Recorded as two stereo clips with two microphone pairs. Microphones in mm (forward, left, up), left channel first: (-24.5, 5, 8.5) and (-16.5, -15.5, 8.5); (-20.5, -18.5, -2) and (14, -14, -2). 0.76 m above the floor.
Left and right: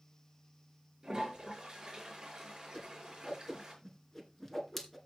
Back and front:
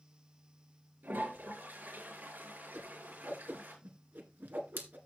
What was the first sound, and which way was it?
A toilet flushing, 5° right.